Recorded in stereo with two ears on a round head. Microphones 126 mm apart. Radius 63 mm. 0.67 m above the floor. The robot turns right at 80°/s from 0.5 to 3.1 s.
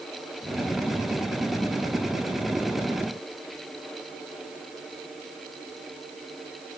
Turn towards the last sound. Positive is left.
No sound to turn to.